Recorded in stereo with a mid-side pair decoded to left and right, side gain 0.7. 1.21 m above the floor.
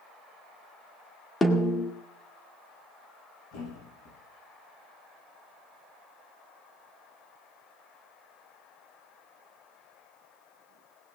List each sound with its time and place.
1.4 s a snare drum: 20° left, 1.9 m
3.5 s a thud: 65° left, 9 m